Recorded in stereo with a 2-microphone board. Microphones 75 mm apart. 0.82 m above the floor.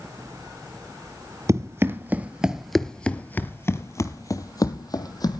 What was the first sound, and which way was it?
Running footsteps, 40° right (ahead or behind).